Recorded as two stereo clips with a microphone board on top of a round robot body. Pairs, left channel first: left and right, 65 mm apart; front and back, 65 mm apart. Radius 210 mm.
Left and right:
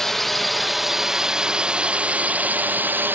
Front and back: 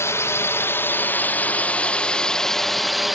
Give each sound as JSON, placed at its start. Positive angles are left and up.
{"t": 0.0, "sound": "a drone", "azimuth_deg": 10}